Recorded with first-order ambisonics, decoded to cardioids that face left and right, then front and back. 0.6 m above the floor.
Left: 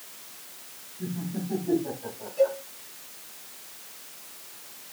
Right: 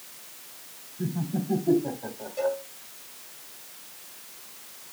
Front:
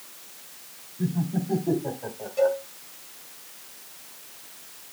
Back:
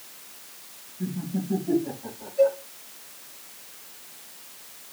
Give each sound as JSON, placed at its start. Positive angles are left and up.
{"t": 1.0, "sound": "laughter", "azimuth_deg": -35, "distance_m": 4.5}
{"t": 2.4, "sound": "a cowbell", "azimuth_deg": -30, "distance_m": 4.0}